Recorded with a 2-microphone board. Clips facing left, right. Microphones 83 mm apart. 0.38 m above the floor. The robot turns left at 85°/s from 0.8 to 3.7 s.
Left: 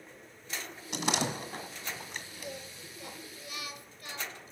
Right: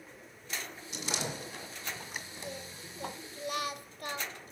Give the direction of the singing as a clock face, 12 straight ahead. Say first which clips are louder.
Even; 12 o'clock.